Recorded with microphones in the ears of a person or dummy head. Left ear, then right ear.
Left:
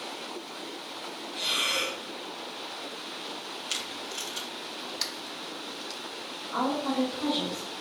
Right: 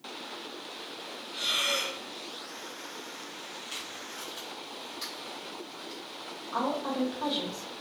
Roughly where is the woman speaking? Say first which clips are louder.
Left 2 dB; right.